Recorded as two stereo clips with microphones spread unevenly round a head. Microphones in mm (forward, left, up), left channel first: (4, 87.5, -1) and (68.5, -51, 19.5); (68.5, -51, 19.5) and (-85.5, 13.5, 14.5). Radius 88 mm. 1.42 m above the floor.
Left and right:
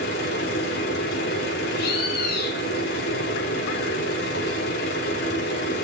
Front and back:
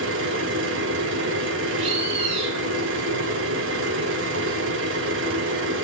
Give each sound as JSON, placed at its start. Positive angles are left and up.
{"t": 0.0, "sound": "a machine running", "azimuth_deg": 150, "distance_m": 4.5}
{"t": 1.8, "sound": "a bird", "azimuth_deg": 105, "distance_m": 1.8}